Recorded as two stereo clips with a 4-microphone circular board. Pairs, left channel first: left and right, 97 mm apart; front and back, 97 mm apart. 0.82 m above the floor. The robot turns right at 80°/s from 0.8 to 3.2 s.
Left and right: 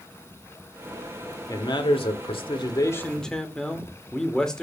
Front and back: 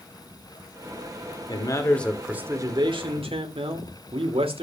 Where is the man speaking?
35° left, 2.5 m; by 4.6 s 175° left, 2.5 m.